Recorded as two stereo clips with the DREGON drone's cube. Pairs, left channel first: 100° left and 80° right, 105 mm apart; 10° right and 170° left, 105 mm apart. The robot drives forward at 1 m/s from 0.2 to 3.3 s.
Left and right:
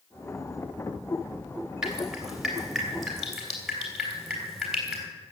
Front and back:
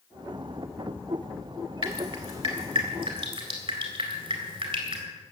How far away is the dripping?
About 2.5 m.